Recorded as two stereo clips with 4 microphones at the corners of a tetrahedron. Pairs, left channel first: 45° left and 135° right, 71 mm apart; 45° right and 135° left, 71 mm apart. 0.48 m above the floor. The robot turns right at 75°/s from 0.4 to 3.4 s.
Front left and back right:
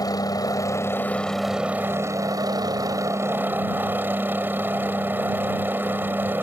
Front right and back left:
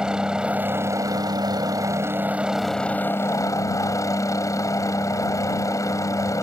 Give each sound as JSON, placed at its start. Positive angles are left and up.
{"t": 0.0, "sound": "a helicopter", "azimuth_deg": 55}